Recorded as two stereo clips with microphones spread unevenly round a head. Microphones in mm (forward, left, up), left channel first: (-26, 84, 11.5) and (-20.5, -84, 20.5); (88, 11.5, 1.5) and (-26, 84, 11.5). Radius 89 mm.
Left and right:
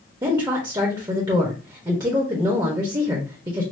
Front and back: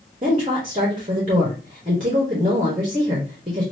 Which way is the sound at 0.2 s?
155° right.